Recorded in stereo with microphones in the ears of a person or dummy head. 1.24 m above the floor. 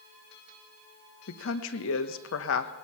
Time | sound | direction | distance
1.3 | a woman speaking | 75° left (ahead or behind) | 1.1 m